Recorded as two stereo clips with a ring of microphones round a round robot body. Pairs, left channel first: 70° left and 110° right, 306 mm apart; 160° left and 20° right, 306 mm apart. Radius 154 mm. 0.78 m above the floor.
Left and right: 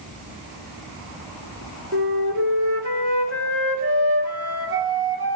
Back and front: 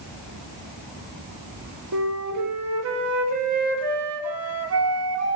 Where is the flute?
60° right, 2.5 m.